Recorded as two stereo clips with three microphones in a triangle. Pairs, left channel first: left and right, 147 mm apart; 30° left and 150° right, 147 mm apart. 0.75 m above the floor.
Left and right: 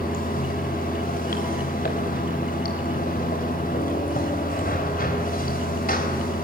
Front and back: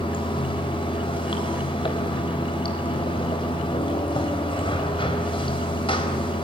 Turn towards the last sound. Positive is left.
turn(degrees=85)